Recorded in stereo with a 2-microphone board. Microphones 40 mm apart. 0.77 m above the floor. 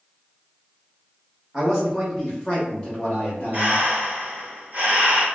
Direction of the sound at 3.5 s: 45° right (ahead or behind).